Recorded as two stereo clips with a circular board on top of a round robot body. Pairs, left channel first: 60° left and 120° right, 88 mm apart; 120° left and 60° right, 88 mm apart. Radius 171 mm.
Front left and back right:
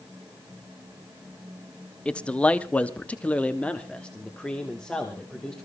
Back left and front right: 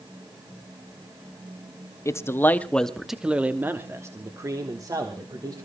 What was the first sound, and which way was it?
A man speaking, 130° left.